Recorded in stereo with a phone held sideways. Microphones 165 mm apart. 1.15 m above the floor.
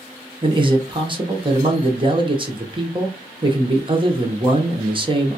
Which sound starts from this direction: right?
A man speaking, at 0.4 s.